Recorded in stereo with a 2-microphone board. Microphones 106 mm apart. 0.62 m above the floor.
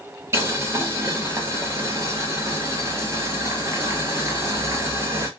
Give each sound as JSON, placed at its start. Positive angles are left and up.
{"t": 0.3, "sound": "boiling", "side_deg": -25, "distance_m": 1.1}